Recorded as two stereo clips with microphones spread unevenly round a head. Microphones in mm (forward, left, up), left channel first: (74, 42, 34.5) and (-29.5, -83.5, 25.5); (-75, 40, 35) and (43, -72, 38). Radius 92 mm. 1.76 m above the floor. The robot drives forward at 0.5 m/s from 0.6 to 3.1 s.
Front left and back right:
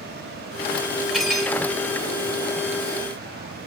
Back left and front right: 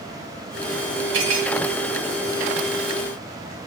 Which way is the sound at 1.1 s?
40° right.